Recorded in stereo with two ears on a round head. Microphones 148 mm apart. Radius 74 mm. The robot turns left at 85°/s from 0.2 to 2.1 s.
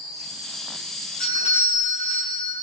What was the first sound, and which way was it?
A doorbell, 110° left.